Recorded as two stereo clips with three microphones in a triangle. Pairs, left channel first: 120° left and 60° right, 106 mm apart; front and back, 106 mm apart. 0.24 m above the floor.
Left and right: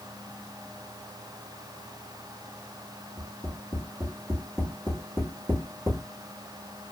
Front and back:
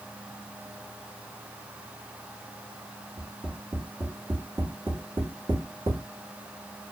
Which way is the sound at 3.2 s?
130° right.